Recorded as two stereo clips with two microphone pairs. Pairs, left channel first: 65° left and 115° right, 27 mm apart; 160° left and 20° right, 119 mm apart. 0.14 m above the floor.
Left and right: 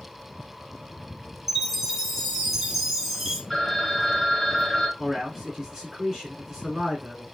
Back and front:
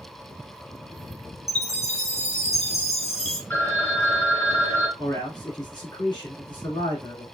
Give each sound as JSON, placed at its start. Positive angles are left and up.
{"t": 1.5, "sound": "a chime", "azimuth_deg": 165, "distance_m": 1.0}
{"t": 3.5, "sound": "a phone ringing", "azimuth_deg": 130, "distance_m": 1.0}
{"t": 5.0, "sound": "a man speaking", "azimuth_deg": 180, "distance_m": 1.8}